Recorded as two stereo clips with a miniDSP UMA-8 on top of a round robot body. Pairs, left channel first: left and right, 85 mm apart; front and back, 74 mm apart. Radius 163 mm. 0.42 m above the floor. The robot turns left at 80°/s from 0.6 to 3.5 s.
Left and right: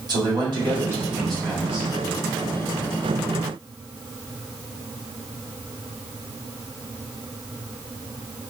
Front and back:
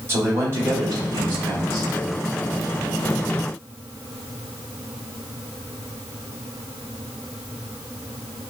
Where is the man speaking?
125° right, 2.5 m; by 1.9 s 130° left, 2.5 m.